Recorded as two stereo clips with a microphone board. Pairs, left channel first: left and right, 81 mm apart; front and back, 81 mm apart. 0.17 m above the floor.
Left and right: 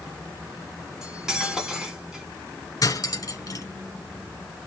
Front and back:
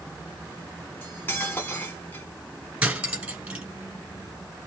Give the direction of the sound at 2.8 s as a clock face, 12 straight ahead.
8 o'clock.